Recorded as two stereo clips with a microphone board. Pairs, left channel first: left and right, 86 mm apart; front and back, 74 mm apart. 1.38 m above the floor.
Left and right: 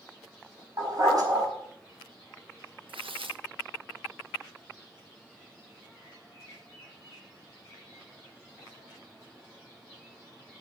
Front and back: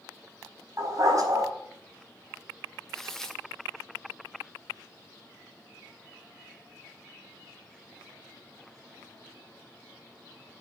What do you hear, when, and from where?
0.8 s a dog barking: 135° right, 4.5 m
2.9 s tearing paper: 85° right, 1.3 m